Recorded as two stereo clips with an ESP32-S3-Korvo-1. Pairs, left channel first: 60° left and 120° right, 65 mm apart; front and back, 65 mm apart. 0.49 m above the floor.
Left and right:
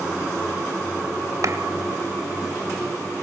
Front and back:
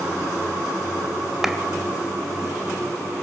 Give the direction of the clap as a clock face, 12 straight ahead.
3 o'clock.